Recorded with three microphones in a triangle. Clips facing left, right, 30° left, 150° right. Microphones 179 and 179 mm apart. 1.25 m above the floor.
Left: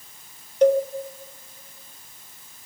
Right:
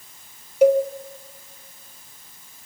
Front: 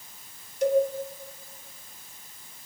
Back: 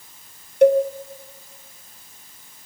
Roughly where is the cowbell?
Behind.